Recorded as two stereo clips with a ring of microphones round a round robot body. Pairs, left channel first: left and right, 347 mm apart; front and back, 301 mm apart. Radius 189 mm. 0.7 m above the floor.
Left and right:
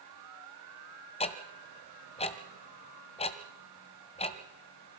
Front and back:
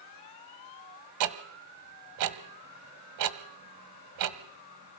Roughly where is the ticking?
Behind.